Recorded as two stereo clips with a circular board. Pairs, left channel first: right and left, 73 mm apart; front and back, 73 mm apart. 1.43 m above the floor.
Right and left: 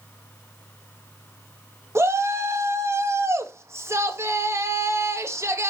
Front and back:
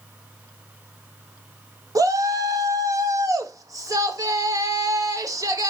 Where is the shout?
140° left, 1.8 m.